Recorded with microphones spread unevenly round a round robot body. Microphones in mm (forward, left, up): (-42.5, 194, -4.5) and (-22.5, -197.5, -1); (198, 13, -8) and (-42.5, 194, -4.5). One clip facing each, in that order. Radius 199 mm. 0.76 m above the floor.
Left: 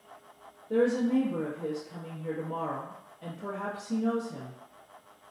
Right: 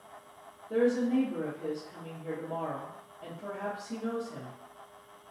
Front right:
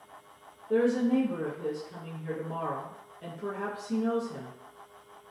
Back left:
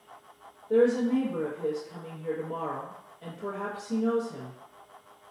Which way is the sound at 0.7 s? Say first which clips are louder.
Left 1 dB, back left 2 dB; 35° left.